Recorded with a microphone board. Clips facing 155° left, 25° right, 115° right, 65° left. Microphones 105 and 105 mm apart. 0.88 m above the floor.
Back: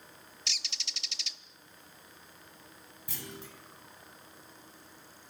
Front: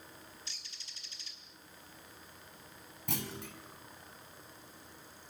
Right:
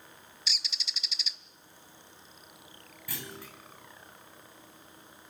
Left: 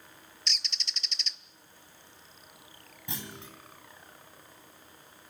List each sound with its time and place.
0.5 s a bird: 160° left, 0.6 m
3.1 s a clunk: straight ahead, 3.5 m